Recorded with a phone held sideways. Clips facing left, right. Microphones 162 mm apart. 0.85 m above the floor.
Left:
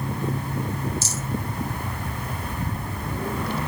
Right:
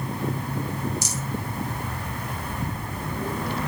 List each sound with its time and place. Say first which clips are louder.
1.0 s a rattle: even; 15° right (ahead or behind), 2.5 m